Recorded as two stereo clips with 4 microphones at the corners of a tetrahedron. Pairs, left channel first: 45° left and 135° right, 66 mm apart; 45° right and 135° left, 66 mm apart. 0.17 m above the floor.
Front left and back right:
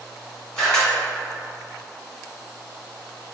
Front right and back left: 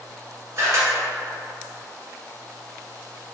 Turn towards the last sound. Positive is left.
turn(degrees=115)